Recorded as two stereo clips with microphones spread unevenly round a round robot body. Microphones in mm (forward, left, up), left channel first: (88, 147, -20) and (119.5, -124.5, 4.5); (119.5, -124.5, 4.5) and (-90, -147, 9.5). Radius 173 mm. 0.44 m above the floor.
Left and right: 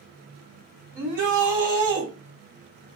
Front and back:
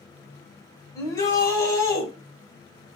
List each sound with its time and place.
0.9 s a shout: 70° right, 1.9 m